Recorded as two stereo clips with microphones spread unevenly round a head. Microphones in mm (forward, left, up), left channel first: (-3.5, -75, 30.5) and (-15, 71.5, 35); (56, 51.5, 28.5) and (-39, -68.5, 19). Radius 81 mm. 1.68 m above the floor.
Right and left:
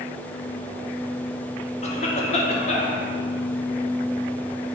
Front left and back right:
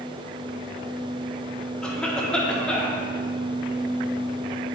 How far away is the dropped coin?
I don't hear a dropped coin.